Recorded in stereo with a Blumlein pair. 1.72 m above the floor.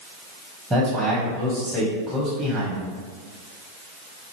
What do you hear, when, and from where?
0.7 s a man speaking: 5° right, 1.8 m